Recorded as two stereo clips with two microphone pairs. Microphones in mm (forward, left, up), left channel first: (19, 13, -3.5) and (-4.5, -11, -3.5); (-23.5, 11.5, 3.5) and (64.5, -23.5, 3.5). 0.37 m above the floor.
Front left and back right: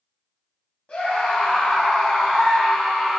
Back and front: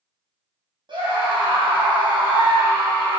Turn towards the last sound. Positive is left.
turn(degrees=-45)